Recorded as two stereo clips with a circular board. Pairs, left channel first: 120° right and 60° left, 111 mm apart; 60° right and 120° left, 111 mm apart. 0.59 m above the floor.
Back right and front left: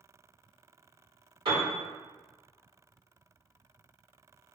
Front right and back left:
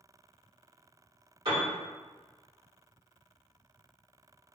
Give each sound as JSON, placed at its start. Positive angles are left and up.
{"t": 1.4, "sound": "a piano", "azimuth_deg": 90, "distance_m": 1.8}